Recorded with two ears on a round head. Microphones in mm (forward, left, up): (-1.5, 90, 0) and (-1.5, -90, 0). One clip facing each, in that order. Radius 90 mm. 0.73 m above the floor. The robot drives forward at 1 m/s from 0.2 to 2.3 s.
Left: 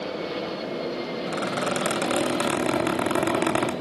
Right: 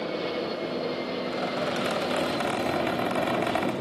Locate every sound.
1.3 s a squeak: 75° left (ahead or behind), 2.5 m; by 3.7 s 60° left (ahead or behind), 2.5 m